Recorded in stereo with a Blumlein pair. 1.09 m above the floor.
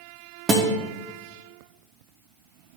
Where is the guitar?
25° right, 1.3 m.